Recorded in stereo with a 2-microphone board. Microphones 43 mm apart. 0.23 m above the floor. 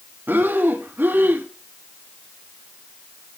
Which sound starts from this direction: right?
Breathing, at 0.3 s.